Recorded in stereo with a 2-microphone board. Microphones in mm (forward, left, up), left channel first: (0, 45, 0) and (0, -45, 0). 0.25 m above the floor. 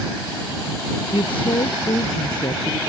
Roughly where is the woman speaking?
Left.